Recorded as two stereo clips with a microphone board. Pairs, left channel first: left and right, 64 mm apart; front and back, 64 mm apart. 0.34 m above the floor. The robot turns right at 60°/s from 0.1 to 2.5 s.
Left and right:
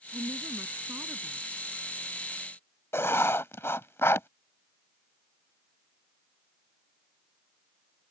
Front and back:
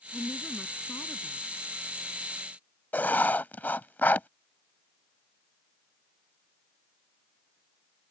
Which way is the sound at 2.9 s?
55° left.